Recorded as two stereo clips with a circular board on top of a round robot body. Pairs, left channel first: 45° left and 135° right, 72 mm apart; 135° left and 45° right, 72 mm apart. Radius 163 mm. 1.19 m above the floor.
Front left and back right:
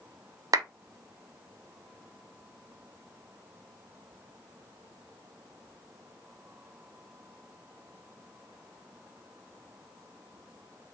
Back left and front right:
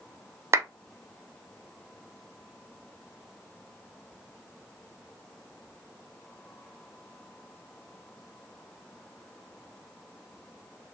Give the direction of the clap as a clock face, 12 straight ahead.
3 o'clock.